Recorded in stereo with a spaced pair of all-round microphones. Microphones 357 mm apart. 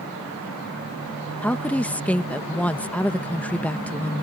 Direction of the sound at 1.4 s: 5° left (ahead or behind).